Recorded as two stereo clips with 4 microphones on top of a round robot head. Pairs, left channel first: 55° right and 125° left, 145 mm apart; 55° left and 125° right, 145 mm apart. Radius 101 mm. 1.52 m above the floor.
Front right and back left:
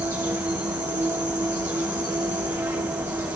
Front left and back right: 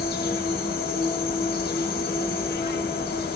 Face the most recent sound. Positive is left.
turn(degrees=45)